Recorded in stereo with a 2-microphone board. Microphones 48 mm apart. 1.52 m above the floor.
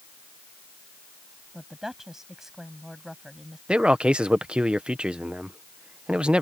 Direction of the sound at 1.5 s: 5° right (ahead or behind).